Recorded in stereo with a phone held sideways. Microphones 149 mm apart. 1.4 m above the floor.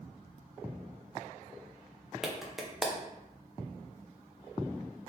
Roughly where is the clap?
Centre.